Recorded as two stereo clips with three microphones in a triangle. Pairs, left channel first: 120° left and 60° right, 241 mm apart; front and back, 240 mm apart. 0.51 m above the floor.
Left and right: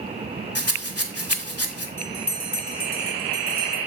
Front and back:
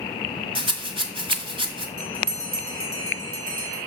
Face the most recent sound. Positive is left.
turn(degrees=-175)